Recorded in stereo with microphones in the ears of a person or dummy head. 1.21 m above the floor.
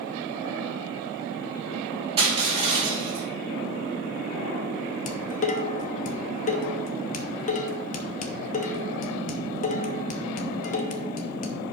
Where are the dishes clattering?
45° left (ahead or behind), 0.8 m.